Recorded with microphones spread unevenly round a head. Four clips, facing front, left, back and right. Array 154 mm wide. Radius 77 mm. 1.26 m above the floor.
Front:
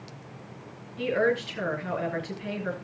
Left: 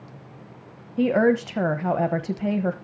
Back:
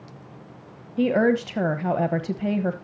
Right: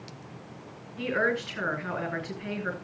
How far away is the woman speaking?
About 1.0 m.